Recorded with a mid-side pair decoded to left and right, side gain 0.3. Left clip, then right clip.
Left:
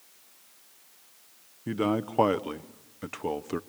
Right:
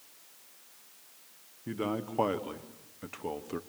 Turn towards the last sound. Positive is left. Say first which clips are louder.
# left 6 dB
turn(degrees=60)